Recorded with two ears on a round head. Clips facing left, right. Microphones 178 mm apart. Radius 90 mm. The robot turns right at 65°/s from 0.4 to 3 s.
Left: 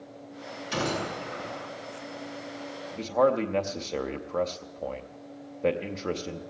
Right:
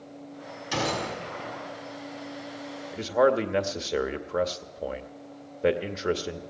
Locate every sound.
0.7 s a gunshot: 115° right, 5.5 m; by 1.7 s 50° right, 5.5 m
2.9 s a man speaking: 5° right (ahead or behind), 0.7 m; by 6.4 s 10° right (ahead or behind), 0.7 m